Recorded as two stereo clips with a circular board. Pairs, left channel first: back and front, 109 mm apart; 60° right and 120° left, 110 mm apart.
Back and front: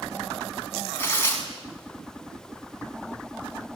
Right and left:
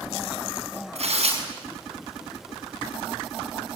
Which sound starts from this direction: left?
Tearing paper, at 0.9 s.